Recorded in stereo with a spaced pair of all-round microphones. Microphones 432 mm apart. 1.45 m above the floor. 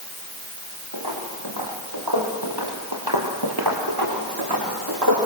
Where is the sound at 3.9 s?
55° right (ahead or behind), 8 m; by 5.2 s 60° right (ahead or behind), 7.5 m.